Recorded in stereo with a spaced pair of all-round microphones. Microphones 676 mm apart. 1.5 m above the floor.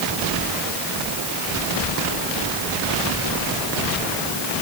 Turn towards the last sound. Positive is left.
No sound to turn to.